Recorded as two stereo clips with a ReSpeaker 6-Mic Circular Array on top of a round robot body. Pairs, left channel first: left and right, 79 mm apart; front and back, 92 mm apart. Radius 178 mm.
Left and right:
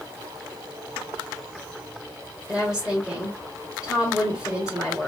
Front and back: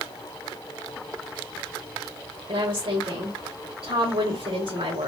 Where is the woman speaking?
170° right, 1.7 m.